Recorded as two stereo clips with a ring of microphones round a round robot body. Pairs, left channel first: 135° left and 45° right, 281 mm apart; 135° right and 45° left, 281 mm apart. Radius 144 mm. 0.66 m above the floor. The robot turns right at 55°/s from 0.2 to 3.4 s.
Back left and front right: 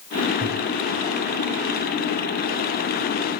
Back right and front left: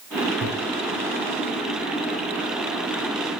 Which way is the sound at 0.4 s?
15° left.